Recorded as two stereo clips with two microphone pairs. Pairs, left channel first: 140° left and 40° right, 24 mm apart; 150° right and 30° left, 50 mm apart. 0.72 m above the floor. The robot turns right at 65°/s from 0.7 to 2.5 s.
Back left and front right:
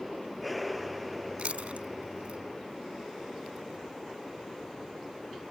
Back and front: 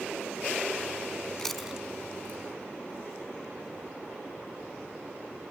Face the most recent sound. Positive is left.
turn(degrees=0)